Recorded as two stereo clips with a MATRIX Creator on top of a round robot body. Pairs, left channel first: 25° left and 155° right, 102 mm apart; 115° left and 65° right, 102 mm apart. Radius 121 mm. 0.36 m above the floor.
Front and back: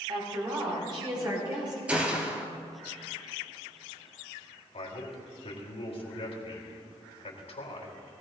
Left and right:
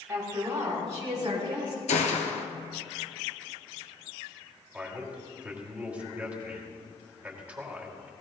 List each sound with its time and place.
0.1 s a woman speaking: 125° right, 3 m; by 1.8 s 110° right, 4 m
1.9 s a gunshot: 125° left, 1.4 m
4.7 s a man speaking: 10° left, 3 m